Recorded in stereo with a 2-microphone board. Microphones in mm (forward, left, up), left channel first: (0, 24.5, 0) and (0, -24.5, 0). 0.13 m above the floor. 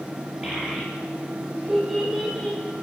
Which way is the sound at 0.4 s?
20° right (ahead or behind).